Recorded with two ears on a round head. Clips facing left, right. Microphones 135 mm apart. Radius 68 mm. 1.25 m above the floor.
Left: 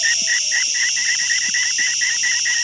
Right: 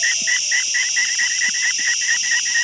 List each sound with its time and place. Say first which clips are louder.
0.0 s an insect: even; 50° left (ahead or behind), 1.4 m